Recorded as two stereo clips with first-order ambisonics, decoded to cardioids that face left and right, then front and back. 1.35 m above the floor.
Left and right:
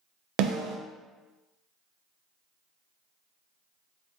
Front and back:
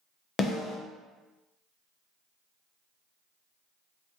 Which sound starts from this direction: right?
A snare drum, at 0.4 s.